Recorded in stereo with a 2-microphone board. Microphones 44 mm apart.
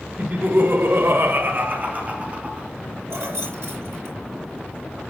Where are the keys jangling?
85° right, 8 m.